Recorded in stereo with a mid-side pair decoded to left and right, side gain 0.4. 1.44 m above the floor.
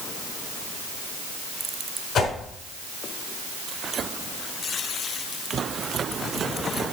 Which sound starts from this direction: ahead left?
A whoosh, at 2.1 s.